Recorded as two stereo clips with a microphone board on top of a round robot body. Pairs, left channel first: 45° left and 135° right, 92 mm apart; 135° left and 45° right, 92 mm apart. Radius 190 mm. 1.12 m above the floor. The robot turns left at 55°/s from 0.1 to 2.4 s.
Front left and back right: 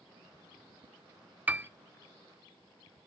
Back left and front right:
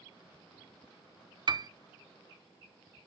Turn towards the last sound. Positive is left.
turn(degrees=-120)